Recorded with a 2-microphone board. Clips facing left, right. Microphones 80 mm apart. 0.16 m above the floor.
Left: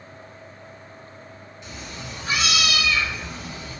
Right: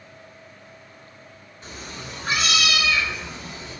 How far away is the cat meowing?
About 0.6 m.